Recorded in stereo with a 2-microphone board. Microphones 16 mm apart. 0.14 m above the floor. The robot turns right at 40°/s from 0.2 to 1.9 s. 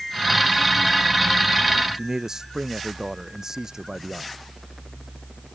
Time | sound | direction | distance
1.9 | a man speaking | 35° right (ahead or behind) | ?